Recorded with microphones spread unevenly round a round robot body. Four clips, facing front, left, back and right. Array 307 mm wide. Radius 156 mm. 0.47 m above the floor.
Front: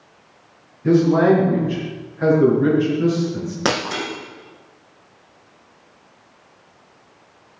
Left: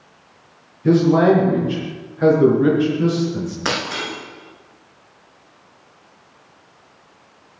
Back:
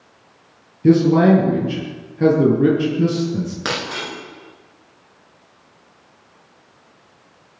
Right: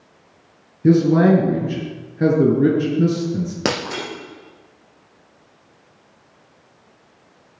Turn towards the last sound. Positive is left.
turn(degrees=-65)